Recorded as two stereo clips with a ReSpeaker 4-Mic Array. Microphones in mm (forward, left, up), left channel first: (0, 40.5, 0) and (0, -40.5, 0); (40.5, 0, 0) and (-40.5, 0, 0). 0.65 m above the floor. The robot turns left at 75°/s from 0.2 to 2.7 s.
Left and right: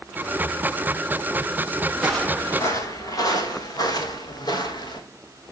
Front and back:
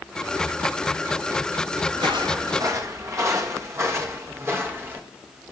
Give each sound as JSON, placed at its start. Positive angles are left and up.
{"t": 1.9, "sound": "footsteps", "azimuth_deg": -165, "distance_m": 8.0}